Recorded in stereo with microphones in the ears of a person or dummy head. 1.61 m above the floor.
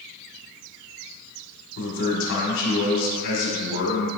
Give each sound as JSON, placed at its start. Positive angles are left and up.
{"t": 1.8, "sound": "a man speaking", "side_deg": 75, "distance_m": 1.6}